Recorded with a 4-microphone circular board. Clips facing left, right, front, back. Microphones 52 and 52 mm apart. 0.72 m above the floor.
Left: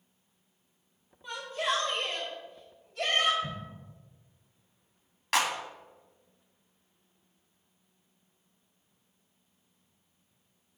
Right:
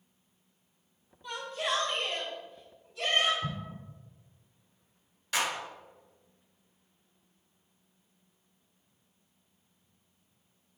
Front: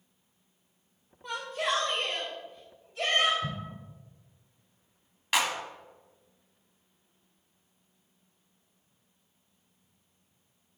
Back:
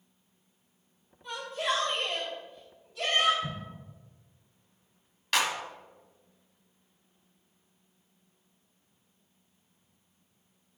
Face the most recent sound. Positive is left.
turn(degrees=70)